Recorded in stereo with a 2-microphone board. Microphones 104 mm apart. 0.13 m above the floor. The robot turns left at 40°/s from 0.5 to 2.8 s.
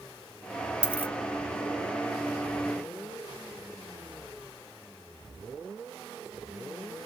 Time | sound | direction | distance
0.8 | a dropped coin | 10° right (ahead or behind) | 1.0 m